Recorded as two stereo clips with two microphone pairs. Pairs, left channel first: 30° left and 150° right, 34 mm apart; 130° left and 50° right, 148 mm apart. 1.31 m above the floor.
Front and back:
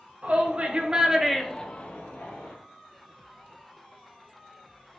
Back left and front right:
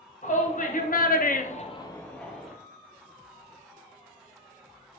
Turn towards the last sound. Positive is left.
turn(degrees=35)